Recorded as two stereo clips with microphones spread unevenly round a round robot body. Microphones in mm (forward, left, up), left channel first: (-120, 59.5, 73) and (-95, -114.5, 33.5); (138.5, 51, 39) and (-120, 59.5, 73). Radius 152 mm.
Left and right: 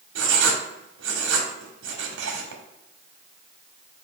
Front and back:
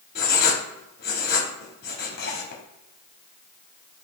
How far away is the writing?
About 1.0 m.